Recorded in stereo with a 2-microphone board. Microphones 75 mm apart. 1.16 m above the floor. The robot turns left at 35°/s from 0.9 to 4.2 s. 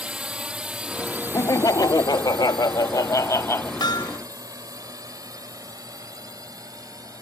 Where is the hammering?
75° left (ahead or behind).